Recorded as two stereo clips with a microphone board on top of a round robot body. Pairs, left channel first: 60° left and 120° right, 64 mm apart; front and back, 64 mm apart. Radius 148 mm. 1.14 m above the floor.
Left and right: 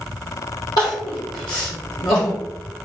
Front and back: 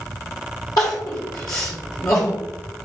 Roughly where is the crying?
Ahead left.